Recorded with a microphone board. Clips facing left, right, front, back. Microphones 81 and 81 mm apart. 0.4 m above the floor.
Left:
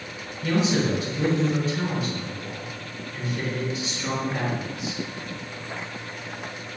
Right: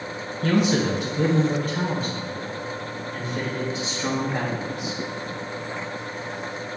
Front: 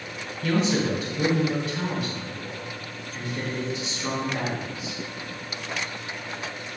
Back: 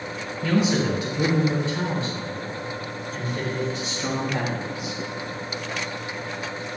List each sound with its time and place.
0.4 s a man speaking: 105° right, 3 m; by 5.0 s 155° right, 3 m